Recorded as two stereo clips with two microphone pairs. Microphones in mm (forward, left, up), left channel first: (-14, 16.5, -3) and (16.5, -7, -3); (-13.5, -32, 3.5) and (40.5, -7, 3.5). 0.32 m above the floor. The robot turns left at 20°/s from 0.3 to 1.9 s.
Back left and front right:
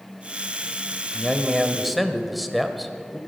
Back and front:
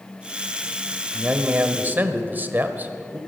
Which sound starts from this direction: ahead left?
A man speaking, at 1.1 s.